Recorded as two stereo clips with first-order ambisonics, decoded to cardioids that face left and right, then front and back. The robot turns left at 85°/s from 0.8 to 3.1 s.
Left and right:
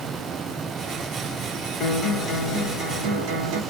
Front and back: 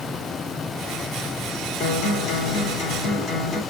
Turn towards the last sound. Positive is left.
turn(degrees=-80)